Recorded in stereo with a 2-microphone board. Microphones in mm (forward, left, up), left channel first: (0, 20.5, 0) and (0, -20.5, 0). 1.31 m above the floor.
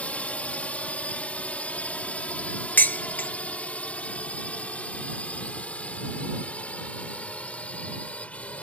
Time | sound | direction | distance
0.0 | a drone | 35° left (ahead or behind) | ?
2.8 | dishes clattering | 50° left (ahead or behind) | ?